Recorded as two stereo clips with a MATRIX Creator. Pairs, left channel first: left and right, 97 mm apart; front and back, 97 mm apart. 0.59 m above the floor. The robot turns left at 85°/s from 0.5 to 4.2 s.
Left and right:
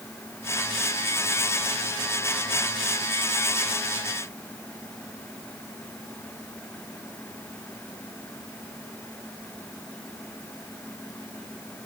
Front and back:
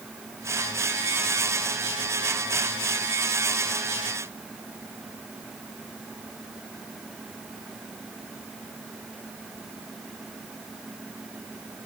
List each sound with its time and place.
Only background noise.